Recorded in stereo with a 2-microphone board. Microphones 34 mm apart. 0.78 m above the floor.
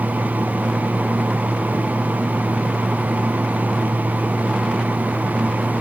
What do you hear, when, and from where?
Only background noise.